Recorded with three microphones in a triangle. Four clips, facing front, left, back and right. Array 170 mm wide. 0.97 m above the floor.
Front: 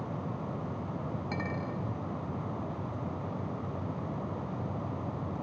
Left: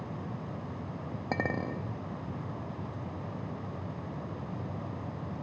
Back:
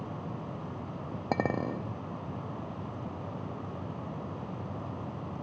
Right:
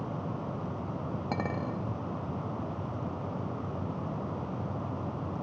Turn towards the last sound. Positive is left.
turn(degrees=170)